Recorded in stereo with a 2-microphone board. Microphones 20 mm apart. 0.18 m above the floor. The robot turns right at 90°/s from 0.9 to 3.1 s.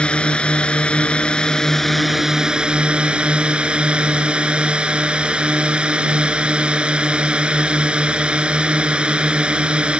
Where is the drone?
75° left; by 10.0 s 85° right.